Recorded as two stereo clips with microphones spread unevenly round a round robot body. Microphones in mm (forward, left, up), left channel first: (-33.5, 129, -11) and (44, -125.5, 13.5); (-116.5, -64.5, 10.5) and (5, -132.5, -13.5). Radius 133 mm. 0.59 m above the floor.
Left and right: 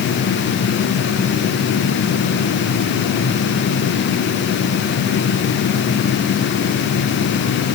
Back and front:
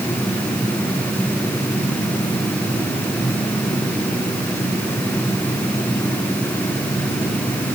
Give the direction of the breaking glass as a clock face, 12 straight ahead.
I don't hear breaking glass.